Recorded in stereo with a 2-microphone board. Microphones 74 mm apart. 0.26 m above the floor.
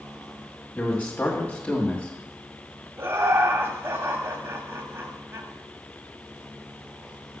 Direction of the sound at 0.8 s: 20° left (ahead or behind).